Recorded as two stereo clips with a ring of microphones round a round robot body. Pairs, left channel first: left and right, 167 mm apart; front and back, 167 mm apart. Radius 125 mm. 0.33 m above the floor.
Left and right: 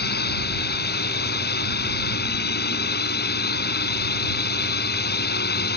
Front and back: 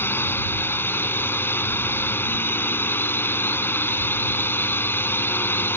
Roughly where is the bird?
I don't hear a bird.